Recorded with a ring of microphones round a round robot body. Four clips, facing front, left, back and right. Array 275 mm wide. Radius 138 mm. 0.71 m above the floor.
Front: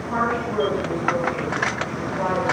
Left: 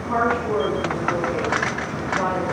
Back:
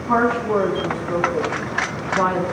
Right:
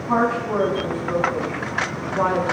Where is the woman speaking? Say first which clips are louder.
Right 1 dB, back 6 dB; 155° right, 5.5 m.